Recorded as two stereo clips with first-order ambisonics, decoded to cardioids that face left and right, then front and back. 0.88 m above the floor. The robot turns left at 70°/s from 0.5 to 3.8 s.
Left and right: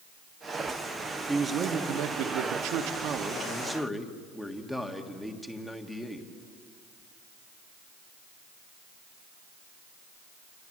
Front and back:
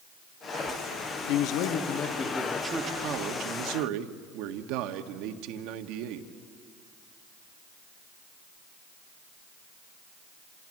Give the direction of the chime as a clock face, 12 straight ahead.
I don't hear a chime.